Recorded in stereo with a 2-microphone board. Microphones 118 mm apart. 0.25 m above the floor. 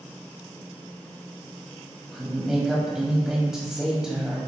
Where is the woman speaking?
5° right (ahead or behind), 1.0 m.